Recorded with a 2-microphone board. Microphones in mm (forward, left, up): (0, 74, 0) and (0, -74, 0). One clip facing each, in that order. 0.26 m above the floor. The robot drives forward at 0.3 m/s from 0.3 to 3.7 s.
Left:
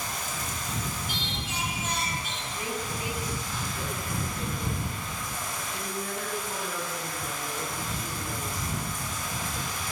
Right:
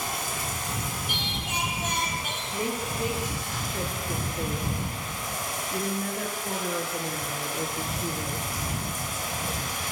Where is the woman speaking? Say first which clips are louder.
Right 4 dB; 50° right (ahead or behind), 5.5 m; by 8.5 s 45° right (ahead or behind), 5.5 m.